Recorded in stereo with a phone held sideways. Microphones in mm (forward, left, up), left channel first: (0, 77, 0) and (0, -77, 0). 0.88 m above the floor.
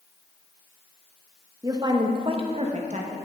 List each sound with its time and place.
1.6 s a woman speaking: 20° right (ahead or behind), 1.2 m; by 3.2 s 50° right (ahead or behind), 1.3 m